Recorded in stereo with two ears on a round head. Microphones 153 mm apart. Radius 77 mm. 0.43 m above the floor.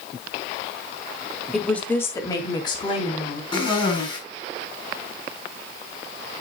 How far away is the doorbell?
No doorbell in this recording.